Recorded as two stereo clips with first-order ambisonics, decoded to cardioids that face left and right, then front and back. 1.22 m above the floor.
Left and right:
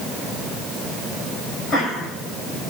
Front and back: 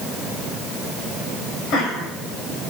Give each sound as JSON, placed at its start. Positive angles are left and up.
{"t": 1.7, "sound": "laughter", "azimuth_deg": 30, "distance_m": 6.0}